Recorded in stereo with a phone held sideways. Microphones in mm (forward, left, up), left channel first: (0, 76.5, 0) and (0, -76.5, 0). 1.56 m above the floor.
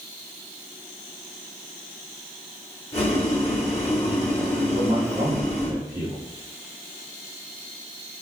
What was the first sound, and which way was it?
Boiling, 45° left (ahead or behind).